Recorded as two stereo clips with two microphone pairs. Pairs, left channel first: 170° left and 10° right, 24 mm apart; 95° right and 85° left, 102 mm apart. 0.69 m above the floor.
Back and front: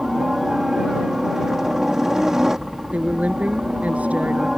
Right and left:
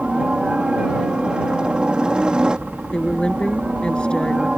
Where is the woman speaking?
15° right.